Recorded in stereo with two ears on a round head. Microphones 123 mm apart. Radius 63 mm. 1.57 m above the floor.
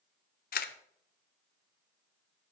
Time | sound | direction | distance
0.5 | a camera shutter | 65° left (ahead or behind) | 0.8 m